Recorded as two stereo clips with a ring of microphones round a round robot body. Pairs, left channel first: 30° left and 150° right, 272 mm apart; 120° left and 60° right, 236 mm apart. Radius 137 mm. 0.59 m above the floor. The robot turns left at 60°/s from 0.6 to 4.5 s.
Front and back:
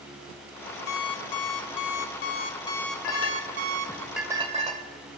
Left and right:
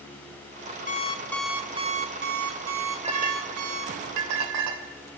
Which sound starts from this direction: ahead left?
An alarm clock, at 0.9 s.